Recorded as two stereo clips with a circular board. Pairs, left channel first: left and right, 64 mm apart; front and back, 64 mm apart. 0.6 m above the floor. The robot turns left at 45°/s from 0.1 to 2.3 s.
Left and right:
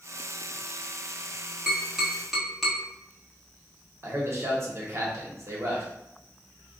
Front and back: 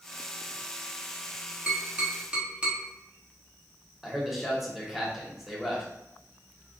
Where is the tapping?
135° right, 1.0 m; by 2.8 s 160° right, 1.0 m.